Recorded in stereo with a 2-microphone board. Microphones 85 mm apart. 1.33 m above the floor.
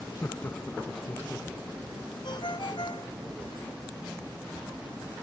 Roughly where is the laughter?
Left.